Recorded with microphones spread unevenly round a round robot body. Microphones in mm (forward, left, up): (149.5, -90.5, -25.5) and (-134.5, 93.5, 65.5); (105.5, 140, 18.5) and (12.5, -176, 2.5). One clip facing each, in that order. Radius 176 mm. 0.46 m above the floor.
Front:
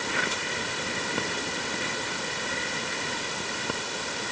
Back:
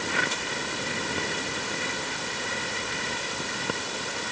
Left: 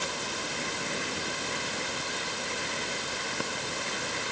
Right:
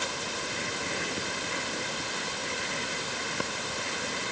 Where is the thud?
No thud in this recording.